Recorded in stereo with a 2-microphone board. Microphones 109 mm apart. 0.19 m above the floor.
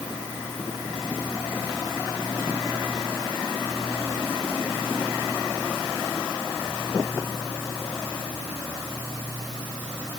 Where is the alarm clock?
No alarm clock in this recording.